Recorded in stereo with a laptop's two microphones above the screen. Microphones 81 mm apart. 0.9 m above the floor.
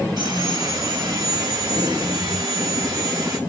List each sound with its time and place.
0.2 s sawing: 70° right (ahead or behind), 3.5 m